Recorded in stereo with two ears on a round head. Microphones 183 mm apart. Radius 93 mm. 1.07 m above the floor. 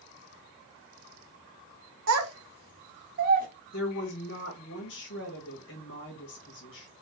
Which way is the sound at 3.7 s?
60° left (ahead or behind).